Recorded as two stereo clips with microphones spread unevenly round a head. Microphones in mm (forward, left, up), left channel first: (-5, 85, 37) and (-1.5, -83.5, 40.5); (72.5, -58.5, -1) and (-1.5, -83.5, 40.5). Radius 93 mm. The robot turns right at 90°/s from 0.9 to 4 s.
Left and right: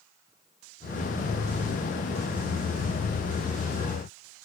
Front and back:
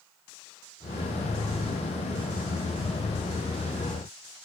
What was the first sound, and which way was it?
Only background noise.